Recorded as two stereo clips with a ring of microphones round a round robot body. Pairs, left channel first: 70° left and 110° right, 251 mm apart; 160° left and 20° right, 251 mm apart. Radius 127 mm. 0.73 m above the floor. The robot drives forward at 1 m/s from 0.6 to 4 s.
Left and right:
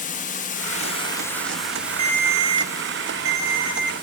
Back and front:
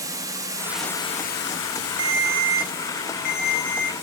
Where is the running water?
45° left, 0.8 m; by 4.0 s 175° left, 3 m.